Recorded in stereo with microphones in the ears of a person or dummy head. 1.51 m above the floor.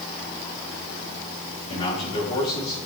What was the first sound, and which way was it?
A man speaking, 35° left (ahead or behind).